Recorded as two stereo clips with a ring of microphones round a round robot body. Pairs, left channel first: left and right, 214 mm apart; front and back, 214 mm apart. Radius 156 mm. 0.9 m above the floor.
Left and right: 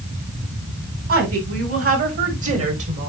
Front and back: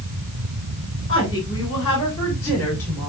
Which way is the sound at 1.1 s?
75° right.